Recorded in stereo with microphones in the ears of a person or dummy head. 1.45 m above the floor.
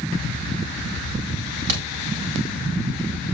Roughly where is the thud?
Right.